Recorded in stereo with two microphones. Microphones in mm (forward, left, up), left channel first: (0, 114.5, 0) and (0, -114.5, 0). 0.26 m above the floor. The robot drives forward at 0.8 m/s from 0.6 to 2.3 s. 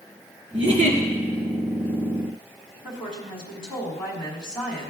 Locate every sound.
0.5 s a giggle: 60° right (ahead or behind), 2.5 m; by 1.0 s 70° right (ahead or behind), 2.5 m
2.8 s a woman speaking: 5° left (ahead or behind), 2 m